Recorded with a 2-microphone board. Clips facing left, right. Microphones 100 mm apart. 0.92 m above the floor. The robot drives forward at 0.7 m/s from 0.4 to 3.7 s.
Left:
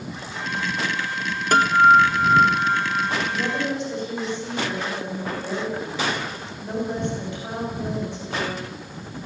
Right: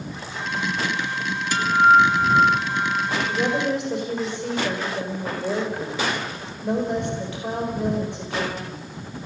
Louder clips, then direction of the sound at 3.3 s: Right 3 dB; 65° right (ahead or behind).